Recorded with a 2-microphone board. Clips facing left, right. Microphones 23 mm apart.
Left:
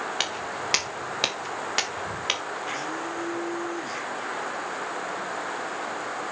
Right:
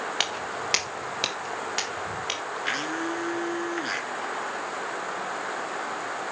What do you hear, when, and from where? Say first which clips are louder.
0.2 s footsteps: right 1 dB; 5° right (ahead or behind), 1.6 m; by 2.4 s 25° left (ahead or behind), 2.5 m
2.6 s a blender: right 5 dB; 50° right (ahead or behind), 3 m